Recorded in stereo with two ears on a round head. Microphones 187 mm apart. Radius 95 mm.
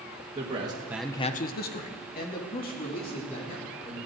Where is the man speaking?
25° right (ahead or behind), 1.4 m; by 4.1 s 40° left (ahead or behind), 4.5 m.